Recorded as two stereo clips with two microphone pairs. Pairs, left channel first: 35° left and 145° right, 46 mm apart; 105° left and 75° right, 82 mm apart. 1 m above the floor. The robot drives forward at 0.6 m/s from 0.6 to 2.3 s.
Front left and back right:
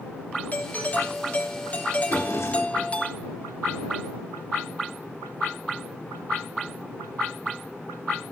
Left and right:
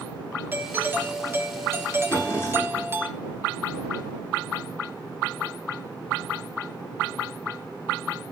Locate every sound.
0.5 s a doorbell: 15° right, 3 m; by 3.1 s 20° right, 1.9 m
2.1 s a drawer: 40° left, 9 m